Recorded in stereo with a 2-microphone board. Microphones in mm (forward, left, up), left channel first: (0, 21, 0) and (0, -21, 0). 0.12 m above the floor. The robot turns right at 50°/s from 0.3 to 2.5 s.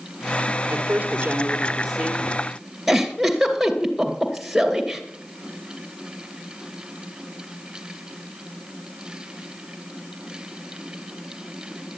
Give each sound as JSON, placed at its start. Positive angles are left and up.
{"t": 0.7, "sound": "a woman speaking", "azimuth_deg": -70, "distance_m": 2.5}
{"t": 2.9, "sound": "a giggle", "side_deg": -5, "distance_m": 2.0}